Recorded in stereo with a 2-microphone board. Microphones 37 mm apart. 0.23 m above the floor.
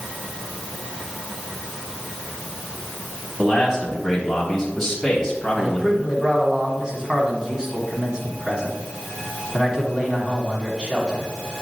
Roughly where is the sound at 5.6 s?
Right.